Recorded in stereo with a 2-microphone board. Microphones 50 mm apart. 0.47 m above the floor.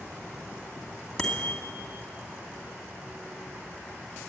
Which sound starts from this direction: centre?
A bicycle bell, at 1.2 s.